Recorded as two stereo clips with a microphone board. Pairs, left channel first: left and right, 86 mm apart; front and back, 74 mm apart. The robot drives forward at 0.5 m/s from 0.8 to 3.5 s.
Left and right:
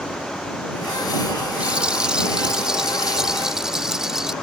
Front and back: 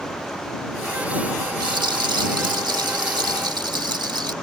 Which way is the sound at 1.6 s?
165° right.